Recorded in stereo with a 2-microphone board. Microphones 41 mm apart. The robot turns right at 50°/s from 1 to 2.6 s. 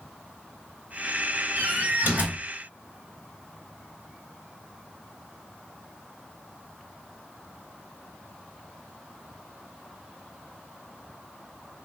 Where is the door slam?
85° right, 1.8 m; by 2.4 s 40° right, 1.8 m.